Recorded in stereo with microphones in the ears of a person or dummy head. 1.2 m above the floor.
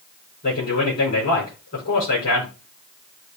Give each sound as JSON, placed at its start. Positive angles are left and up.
{"t": 0.4, "sound": "a man speaking", "side_deg": 50, "distance_m": 5.5}